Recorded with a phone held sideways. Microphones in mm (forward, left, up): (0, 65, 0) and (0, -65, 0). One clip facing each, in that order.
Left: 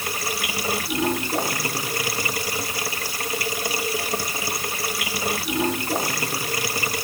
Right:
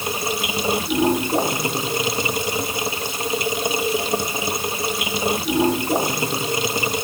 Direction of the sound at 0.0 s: 20° right (ahead or behind).